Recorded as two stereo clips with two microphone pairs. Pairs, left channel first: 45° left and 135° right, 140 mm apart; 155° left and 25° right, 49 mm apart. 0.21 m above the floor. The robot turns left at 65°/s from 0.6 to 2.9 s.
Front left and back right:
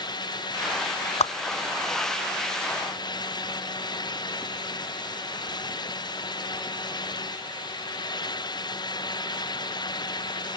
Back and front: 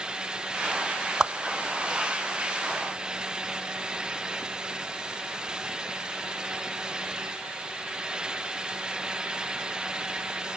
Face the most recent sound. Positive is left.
turn(degrees=-70)